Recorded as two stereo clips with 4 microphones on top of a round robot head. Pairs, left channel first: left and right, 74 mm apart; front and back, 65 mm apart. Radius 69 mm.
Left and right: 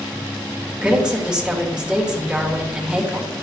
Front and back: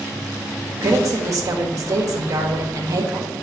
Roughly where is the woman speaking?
Behind.